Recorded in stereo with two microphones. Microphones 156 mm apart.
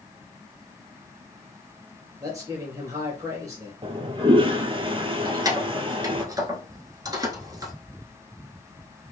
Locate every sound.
2.2 s a man speaking: 20° right (ahead or behind), 2.5 m
3.8 s a toilet flushing: 35° right (ahead or behind), 0.5 m
5.2 s keys jangling: 25° right (ahead or behind), 1.2 m